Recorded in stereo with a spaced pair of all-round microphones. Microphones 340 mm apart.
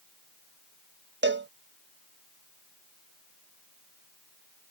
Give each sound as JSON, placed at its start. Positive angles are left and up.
{"t": 1.2, "sound": "a cowbell", "side_deg": -30}